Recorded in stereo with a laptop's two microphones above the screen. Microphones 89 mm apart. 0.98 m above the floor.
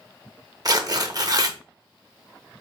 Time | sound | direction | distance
0.7 | tearing paper | 45° right (ahead or behind) | 0.6 m